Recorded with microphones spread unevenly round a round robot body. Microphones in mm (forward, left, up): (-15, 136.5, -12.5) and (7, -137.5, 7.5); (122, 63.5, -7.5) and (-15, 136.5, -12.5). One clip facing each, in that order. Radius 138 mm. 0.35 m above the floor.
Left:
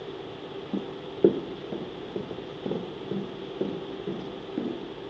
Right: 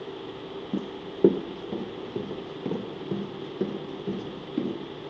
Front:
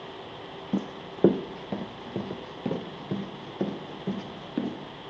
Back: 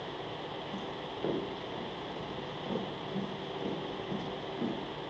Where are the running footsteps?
10° right, 0.8 m.